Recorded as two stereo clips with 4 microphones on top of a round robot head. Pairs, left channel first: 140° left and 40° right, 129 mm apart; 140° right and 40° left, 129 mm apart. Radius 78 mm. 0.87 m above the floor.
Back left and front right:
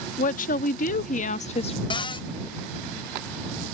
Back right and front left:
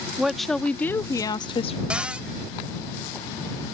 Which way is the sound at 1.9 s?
120° left.